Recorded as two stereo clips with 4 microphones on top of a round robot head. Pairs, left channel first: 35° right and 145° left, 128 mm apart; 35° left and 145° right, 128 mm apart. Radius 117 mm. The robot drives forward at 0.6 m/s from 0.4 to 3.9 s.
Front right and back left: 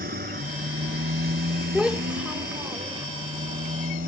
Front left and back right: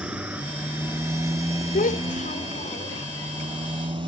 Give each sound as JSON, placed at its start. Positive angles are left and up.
{"t": 0.0, "sound": "a motorcycle", "azimuth_deg": 130}
{"t": 1.7, "sound": "a child speaking", "azimuth_deg": 60}